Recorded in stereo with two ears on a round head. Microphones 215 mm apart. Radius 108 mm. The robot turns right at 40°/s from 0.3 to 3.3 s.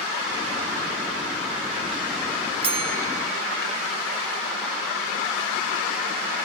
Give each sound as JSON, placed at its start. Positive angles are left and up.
{"t": 2.6, "sound": "a bell", "side_deg": -25, "distance_m": 1.2}